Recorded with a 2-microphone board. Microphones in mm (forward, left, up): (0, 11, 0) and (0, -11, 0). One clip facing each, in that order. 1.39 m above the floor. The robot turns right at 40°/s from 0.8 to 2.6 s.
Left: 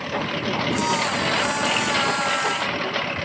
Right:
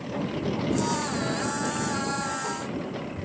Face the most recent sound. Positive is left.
turn(degrees=65)  # may be behind; listen again after turning